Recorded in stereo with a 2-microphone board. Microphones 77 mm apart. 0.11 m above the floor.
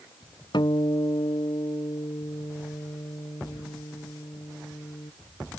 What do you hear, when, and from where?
0.5 s a guitar: 65° left (ahead or behind)